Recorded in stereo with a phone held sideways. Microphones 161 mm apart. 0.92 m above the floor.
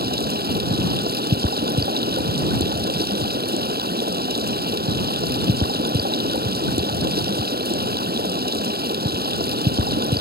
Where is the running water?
80° right.